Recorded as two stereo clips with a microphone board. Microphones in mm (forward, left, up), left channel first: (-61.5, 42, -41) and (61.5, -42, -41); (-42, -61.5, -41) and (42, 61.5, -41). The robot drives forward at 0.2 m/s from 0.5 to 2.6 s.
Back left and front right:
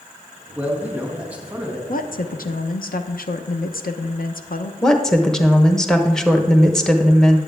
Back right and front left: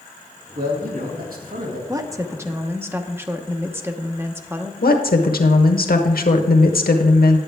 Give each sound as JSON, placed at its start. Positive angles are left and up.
{"t": 0.6, "sound": "a man speaking", "azimuth_deg": 40, "distance_m": 2.0}
{"t": 1.9, "sound": "a woman speaking", "azimuth_deg": 120, "distance_m": 0.8}
{"t": 4.8, "sound": "a woman speaking", "azimuth_deg": -130, "distance_m": 1.0}